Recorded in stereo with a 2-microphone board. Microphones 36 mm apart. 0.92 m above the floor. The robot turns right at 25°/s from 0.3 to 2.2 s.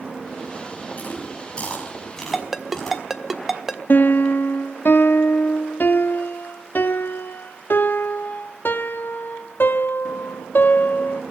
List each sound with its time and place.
1.0 s chewing: 45° left (ahead or behind), 6 m; by 3.0 s 15° left (ahead or behind), 6 m
2.3 s a ringtone: 5° right (ahead or behind), 1.2 m
3.9 s a piano: 60° left (ahead or behind), 0.6 m